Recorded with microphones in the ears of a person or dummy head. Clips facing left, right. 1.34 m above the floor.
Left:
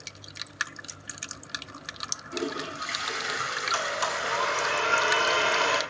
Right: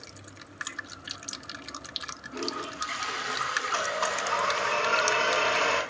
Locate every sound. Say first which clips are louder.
2.3 s a toilet flushing: left 3 dB; 75° left (ahead or behind), 3.5 m
3.7 s a blender: right 1 dB; 40° left (ahead or behind), 3 m